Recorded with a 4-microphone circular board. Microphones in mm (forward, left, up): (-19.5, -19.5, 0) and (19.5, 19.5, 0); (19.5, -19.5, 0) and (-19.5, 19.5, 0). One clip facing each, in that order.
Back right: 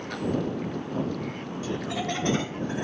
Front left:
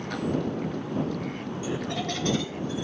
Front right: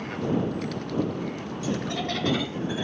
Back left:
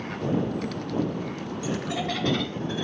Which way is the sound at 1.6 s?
95° left.